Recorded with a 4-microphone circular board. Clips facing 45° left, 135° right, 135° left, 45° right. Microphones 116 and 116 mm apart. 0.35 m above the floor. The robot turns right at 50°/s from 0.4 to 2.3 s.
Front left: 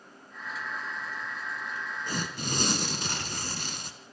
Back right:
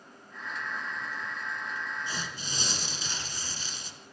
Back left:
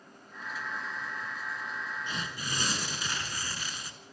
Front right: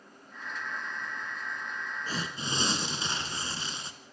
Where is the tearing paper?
5° left, 1.9 m; by 3.9 s 20° left, 1.9 m.